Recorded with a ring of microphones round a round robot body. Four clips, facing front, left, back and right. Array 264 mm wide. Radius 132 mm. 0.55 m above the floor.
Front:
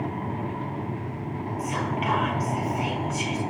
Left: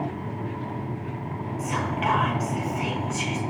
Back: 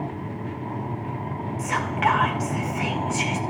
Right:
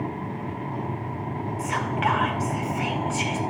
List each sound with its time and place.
1.6 s whispering: 155° right, 3.5 m